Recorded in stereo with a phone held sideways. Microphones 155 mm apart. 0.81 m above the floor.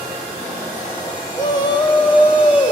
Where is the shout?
25° left (ahead or behind), 4.5 m; by 2.7 s 35° left (ahead or behind), 4 m.